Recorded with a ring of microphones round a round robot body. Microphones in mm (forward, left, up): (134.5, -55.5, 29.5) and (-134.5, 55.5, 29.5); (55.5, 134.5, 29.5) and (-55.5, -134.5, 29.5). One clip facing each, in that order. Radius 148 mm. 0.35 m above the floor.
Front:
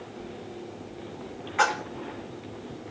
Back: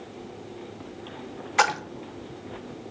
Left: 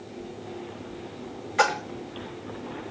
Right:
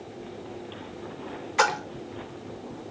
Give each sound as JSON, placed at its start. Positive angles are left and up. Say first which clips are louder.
{"t": 1.6, "sound": "a splash", "louder": "back 1 dB, left 1 dB", "azimuth_deg": 175, "distance_m": 0.6}